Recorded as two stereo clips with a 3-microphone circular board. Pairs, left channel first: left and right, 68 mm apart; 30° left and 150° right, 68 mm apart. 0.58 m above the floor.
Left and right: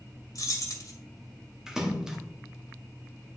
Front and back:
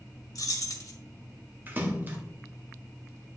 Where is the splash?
165° right, 1.0 m.